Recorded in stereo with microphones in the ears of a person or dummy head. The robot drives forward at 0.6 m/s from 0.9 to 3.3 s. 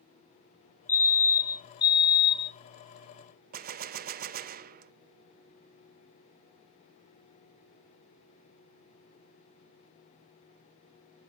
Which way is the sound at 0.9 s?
15° left (ahead or behind).